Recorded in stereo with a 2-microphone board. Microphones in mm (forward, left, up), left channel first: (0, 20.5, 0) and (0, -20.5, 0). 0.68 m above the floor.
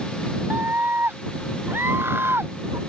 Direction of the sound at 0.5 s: 65° right (ahead or behind).